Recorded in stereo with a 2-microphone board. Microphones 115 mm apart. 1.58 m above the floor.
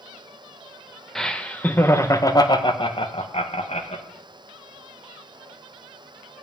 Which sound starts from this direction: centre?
Laughter, at 1.1 s.